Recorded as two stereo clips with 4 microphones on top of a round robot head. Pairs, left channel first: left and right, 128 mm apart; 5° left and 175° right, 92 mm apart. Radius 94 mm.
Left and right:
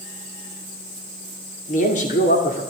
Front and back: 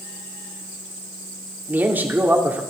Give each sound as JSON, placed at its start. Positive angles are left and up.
{"t": 1.7, "sound": "a man speaking", "azimuth_deg": 120, "distance_m": 2.5}